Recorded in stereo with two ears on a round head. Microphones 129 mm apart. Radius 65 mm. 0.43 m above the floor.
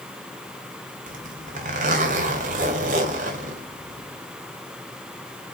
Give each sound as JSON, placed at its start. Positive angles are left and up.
{"t": 1.1, "sound": "a zipper", "side_deg": -55, "distance_m": 3.0}